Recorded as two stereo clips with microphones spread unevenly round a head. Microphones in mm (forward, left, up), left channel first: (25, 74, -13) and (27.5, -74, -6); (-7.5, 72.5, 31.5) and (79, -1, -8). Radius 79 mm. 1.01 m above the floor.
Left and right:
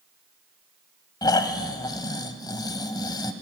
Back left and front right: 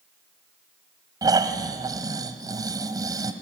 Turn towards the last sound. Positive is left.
turn(degrees=30)